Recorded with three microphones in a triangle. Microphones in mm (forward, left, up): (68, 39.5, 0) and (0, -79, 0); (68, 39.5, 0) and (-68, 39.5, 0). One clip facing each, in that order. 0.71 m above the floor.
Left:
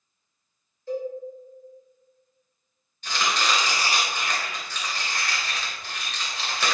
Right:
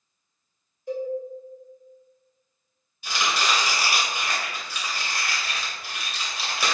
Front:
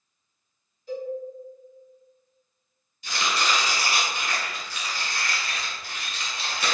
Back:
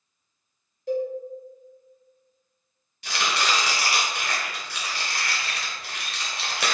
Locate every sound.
0.9 s a cowbell: 165° left, 1.7 m
3.0 s chopping: 160° left, 1.0 m